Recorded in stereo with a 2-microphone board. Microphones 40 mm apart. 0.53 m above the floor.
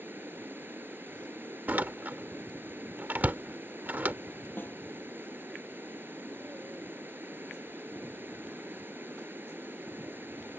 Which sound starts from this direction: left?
A snare drum, at 4.6 s.